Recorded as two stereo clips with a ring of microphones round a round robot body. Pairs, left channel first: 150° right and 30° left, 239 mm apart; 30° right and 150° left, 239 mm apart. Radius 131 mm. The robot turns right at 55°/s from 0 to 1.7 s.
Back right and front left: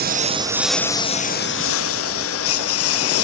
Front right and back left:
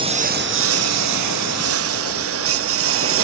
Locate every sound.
0.0 s a lawn mower: 80° left; by 3.2 s 175° right